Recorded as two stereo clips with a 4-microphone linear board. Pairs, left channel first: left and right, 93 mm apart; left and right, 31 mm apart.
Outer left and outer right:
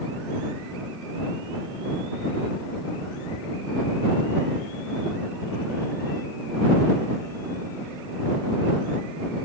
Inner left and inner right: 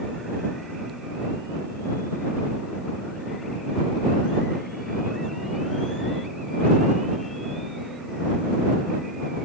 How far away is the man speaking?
No man speaking in this recording.